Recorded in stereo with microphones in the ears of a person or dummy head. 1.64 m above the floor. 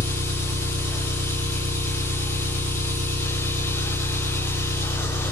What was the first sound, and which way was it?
An engine running, 65° right (ahead or behind).